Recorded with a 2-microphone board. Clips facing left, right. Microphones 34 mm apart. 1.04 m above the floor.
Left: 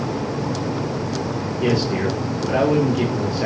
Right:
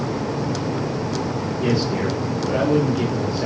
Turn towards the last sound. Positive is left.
turn(degrees=75)  # may be behind; listen again after turning